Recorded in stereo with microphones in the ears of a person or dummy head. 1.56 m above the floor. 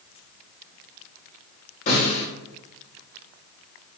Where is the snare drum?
40° left (ahead or behind), 1.7 m.